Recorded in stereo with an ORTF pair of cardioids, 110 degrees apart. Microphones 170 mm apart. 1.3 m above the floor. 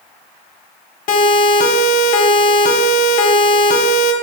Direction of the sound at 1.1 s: 50° left.